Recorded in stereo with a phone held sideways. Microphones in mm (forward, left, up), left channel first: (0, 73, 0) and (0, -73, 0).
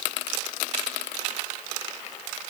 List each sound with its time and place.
Only background noise.